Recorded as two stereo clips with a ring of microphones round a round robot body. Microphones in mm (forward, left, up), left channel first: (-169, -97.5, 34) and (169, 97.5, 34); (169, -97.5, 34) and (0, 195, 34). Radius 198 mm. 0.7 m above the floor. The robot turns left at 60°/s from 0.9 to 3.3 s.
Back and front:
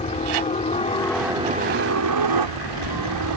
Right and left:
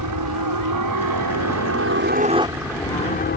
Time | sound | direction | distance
0.0 | a helicopter | 140° left | ?